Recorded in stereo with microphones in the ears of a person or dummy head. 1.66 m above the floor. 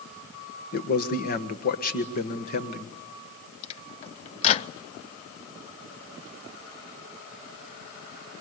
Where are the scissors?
No scissors in this recording.